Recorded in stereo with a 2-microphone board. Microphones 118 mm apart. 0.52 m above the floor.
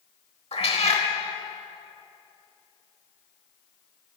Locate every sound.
0.5 s a cat meowing: 60° left (ahead or behind), 1.0 m